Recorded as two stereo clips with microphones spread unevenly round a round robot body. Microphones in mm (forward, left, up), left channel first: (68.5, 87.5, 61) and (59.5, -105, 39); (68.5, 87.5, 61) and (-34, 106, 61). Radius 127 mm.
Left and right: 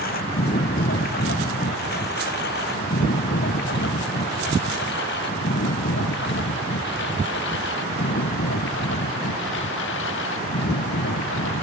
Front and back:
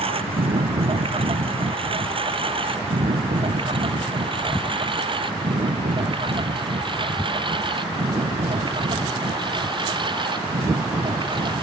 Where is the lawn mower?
140° left; by 11.6 s 125° left.